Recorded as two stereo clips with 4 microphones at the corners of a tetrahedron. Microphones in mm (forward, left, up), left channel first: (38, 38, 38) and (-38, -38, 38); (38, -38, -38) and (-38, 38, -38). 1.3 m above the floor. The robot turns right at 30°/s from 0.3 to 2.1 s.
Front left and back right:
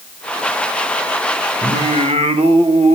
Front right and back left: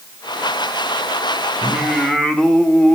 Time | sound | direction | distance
1.6 | singing | 145° right | 2.5 m